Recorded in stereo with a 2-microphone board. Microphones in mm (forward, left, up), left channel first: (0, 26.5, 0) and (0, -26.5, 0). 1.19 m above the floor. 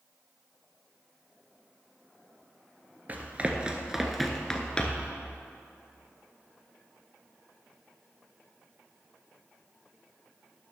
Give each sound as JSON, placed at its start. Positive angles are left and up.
{"t": 3.1, "sound": "running footsteps", "side_deg": -35, "distance_m": 1.3}